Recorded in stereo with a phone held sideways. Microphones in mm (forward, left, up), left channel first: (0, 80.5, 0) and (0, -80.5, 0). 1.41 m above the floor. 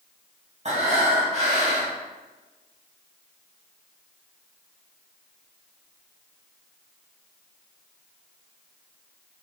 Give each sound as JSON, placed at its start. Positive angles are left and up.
{"t": 0.7, "sound": "breathing", "side_deg": -45, "distance_m": 1.9}